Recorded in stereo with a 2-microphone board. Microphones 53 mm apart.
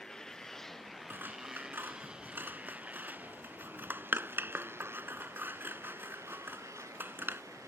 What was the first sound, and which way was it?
A motorcycle, 10° left (ahead or behind).